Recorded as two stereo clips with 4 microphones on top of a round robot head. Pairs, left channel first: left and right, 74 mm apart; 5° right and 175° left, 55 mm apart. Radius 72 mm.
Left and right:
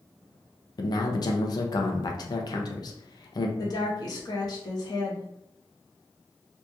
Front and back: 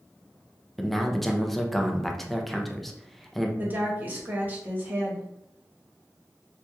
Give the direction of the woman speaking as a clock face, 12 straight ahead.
8 o'clock.